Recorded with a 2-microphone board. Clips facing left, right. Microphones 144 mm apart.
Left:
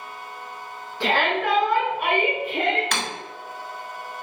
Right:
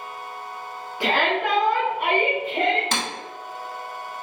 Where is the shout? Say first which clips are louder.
Even; 10° right (ahead or behind), 1.2 m; by 2.8 s 35° right (ahead or behind), 1.8 m.